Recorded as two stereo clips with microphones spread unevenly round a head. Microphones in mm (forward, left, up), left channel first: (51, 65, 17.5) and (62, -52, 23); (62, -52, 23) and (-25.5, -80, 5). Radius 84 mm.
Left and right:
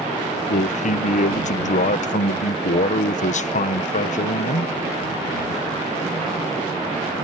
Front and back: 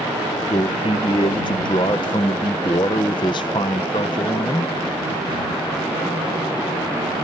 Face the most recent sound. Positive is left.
turn(degrees=80)